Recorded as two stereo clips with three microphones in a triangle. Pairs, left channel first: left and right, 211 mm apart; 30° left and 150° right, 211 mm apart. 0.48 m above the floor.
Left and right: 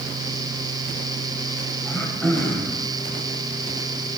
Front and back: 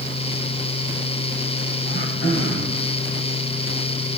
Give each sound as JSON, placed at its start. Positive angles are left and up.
{"t": 1.9, "sound": "throat clearing", "azimuth_deg": 5, "distance_m": 1.5}